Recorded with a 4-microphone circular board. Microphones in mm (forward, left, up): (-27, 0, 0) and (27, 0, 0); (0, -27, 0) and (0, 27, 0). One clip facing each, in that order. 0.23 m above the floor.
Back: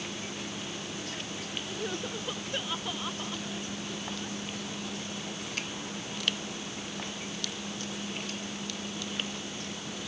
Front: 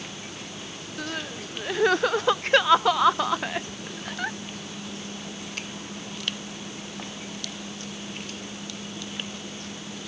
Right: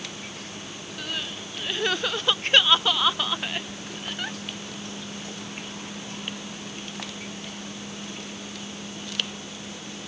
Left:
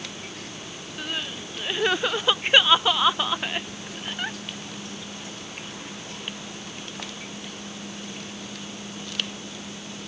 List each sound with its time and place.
1.0 s crying: 15° left